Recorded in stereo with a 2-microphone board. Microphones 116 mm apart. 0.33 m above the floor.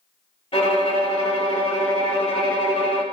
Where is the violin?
55° left (ahead or behind), 0.8 m.